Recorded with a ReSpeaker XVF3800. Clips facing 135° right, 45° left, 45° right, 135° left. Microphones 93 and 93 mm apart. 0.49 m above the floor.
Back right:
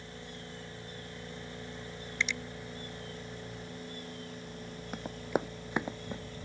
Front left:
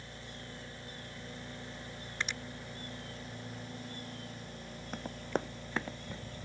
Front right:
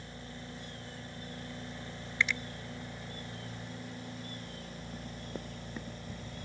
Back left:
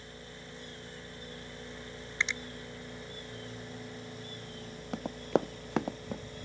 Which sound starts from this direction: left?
A finger snap, at 2.2 s.